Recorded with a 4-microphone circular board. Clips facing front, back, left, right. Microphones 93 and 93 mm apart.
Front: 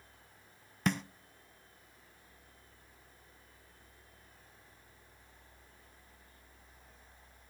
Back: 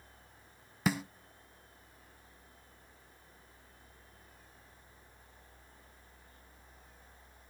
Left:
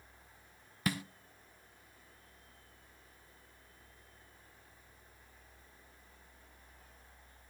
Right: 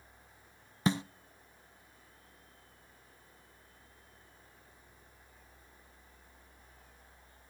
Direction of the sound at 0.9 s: 100° right.